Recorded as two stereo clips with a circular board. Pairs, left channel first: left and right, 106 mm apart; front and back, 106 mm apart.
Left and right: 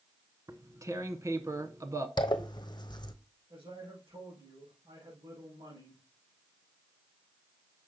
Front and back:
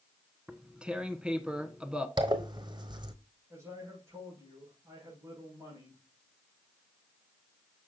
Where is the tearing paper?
105° right, 0.8 m.